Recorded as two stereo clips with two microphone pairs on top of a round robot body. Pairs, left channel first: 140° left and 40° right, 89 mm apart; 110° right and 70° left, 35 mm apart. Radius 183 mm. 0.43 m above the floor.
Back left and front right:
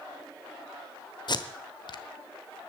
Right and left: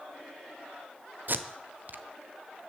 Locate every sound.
1.3 s tape being pulled: 100° left, 1.1 m